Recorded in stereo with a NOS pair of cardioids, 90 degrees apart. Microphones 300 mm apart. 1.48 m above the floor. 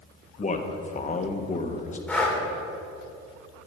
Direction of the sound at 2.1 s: 5° left.